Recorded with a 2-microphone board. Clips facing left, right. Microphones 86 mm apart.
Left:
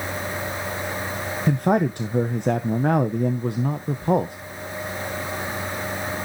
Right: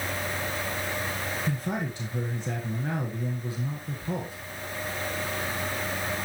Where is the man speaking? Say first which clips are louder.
Left 15 dB; 60° left (ahead or behind), 0.9 m.